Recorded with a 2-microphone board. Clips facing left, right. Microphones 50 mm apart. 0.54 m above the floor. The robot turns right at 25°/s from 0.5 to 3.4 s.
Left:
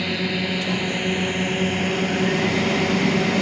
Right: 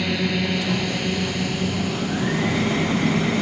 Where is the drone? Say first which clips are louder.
Right 1 dB; 5° left (ahead or behind); by 3.4 s 80° left.